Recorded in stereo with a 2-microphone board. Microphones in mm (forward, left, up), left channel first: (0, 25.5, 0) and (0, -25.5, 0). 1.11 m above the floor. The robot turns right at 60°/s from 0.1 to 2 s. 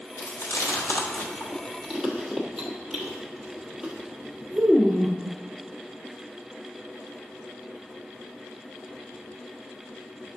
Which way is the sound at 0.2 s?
70° left (ahead or behind).